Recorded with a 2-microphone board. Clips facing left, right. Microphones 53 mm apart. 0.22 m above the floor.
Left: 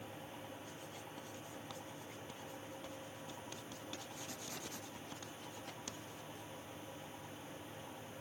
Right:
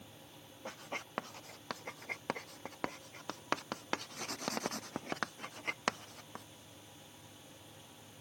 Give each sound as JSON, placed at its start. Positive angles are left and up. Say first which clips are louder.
{"t": 0.7, "sound": "writing", "louder": "right 6 dB", "side_deg": -65}